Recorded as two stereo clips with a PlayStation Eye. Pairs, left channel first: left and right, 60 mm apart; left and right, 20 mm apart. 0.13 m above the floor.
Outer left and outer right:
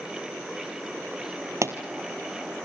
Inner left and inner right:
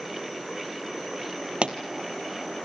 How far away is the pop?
About 1.5 m.